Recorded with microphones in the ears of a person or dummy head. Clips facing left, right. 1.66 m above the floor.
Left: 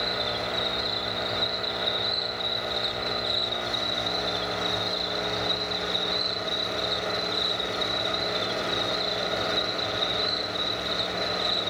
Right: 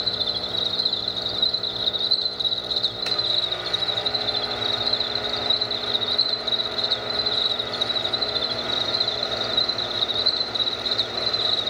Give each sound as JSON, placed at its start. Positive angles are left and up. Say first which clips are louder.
{"t": 0.0, "sound": "an insect", "louder": "left 3 dB", "side_deg": -30, "distance_m": 2.5}